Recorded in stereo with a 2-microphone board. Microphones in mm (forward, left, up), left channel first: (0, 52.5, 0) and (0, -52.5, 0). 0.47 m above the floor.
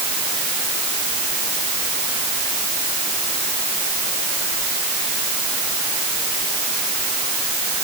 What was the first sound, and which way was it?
Only background noise.